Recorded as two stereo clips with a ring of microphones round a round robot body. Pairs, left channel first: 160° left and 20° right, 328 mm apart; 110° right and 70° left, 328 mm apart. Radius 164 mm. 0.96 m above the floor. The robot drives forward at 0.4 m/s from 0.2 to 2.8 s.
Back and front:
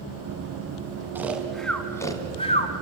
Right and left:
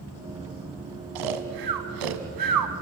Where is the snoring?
60° left, 1.5 m; by 2.7 s 90° left, 1.3 m.